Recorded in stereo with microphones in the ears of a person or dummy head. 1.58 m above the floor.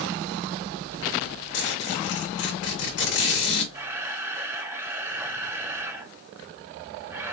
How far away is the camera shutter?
About 0.9 m.